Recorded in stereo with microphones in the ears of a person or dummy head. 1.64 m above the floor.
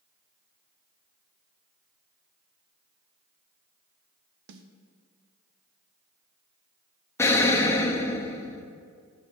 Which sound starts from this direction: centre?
An explosion, at 7.2 s.